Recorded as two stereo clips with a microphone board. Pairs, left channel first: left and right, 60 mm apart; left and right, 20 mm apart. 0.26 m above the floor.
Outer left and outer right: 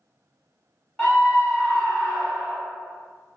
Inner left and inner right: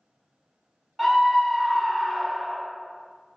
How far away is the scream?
About 1.2 m.